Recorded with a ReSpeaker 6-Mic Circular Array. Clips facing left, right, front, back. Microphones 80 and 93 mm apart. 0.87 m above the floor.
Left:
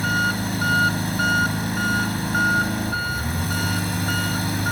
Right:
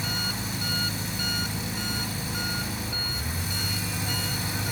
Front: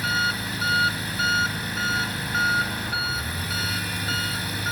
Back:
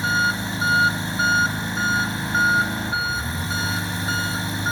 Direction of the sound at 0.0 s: 120° left.